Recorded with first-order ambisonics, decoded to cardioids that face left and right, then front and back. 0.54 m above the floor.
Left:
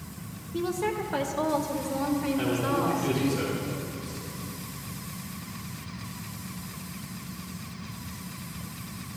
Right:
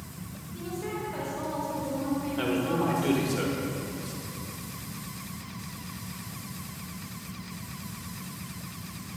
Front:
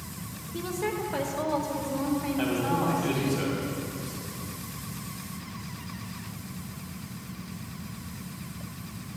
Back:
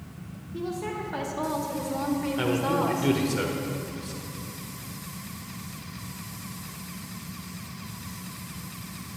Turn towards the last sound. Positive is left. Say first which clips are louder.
# right 1 dB, back 3 dB
turn(degrees=-165)